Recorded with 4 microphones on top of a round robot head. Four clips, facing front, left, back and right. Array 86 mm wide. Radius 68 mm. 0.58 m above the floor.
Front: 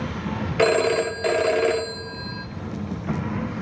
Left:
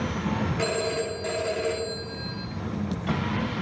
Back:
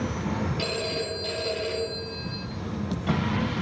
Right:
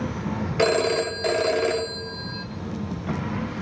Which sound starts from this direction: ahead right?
A phone ringing, at 0.6 s.